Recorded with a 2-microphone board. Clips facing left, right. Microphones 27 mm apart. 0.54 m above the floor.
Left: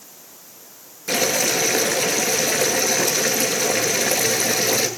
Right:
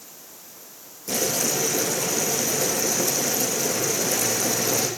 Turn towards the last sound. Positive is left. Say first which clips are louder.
# left 5 dB
turn(degrees=75)  # may be behind; listen again after turning